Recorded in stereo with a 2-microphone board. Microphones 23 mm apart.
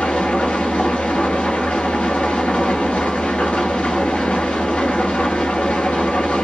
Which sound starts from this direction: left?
An engine running, at 0.0 s.